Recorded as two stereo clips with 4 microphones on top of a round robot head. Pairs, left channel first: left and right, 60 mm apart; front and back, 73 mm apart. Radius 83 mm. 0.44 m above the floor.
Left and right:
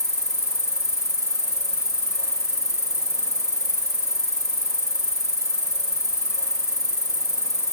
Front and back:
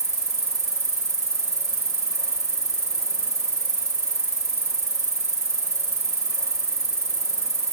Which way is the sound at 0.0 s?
125° left.